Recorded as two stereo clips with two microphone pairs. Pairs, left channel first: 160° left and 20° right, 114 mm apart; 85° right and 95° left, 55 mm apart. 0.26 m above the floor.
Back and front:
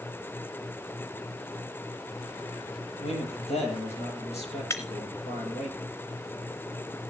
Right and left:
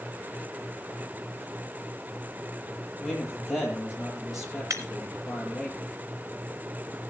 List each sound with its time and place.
3.0 s a man speaking: straight behind, 6.5 m
4.7 s breaking glass: 100° left, 2.0 m